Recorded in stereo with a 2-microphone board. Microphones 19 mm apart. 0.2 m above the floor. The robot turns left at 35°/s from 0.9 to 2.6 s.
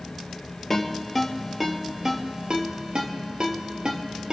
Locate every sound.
0.7 s a ringtone: 10° left (ahead or behind), 3 m; by 4.3 s 45° right (ahead or behind), 3 m